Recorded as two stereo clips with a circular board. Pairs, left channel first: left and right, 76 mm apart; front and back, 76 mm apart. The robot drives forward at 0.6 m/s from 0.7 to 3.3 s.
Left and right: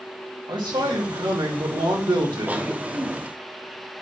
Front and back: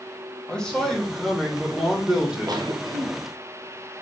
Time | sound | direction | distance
0.5 | a man speaking | 80° right | 3 m
2.5 | a cough | 155° right | 1.6 m